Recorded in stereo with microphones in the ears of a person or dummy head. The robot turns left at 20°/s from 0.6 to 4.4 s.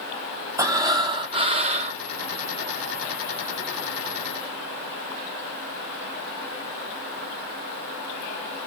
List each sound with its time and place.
0.6 s breathing: 10° right (ahead or behind), 0.7 m; by 2.0 s 35° right (ahead or behind), 0.7 m